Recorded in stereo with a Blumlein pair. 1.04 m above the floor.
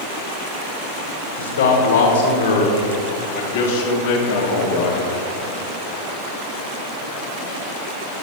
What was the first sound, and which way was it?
A man speaking, 65° left.